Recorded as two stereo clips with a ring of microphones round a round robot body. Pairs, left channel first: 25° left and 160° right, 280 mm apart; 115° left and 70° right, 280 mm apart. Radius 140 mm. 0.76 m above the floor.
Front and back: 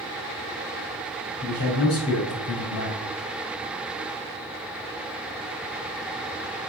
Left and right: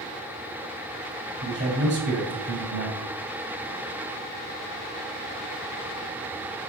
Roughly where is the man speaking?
Ahead.